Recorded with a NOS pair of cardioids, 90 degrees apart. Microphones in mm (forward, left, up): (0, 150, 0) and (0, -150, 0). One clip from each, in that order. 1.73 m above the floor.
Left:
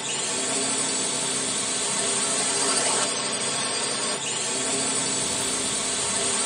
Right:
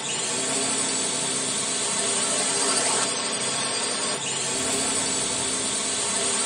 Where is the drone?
Straight ahead.